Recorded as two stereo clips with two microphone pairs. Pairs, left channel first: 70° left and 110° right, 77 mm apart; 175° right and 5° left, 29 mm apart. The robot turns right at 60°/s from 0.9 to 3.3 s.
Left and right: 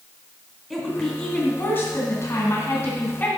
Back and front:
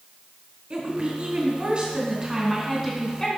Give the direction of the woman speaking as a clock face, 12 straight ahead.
1 o'clock.